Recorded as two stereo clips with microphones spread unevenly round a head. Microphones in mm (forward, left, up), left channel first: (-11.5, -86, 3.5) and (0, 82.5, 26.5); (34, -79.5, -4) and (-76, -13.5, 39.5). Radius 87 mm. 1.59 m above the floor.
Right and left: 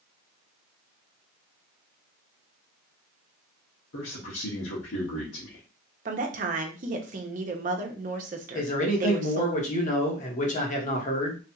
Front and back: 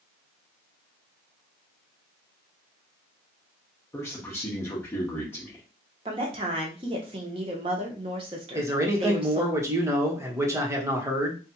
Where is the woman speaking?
115° left, 0.9 m.